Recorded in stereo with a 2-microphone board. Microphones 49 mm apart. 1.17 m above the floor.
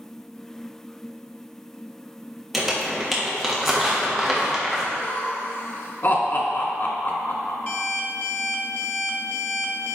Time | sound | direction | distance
2.5 | crumpling | 5° right (ahead or behind) | 1.3 m
4.9 | laughter | 50° left (ahead or behind) | 1.4 m
7.7 | an alarm clock | 40° left (ahead or behind) | 0.8 m